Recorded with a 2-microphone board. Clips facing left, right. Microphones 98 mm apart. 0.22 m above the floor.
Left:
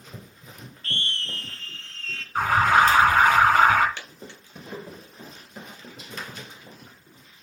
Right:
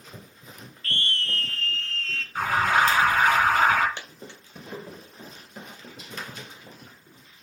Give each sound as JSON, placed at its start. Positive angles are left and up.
{"t": 0.8, "sound": "a scream", "side_deg": 30, "distance_m": 2.0}
{"t": 2.4, "sound": "an alarm", "side_deg": 50, "distance_m": 3.0}
{"t": 4.0, "sound": "a dropped coin", "side_deg": -20, "distance_m": 2.0}